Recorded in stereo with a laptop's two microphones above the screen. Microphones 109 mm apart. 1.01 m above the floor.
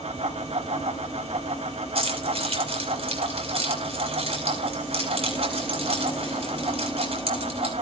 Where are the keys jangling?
60° right (ahead or behind), 3.5 m.